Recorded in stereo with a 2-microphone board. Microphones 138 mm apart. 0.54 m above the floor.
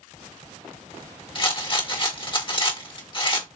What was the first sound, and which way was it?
A rattle, 40° left (ahead or behind).